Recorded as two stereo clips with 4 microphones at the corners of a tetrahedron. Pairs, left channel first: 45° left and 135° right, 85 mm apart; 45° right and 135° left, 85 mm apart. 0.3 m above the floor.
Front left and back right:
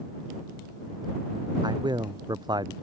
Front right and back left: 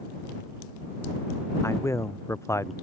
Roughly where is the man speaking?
Right.